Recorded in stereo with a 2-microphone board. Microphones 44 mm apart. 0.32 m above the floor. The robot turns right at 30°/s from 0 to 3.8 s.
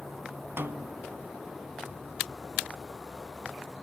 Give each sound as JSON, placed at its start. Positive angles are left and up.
{"t": 0.6, "sound": "a snare drum", "side_deg": -65, "distance_m": 0.6}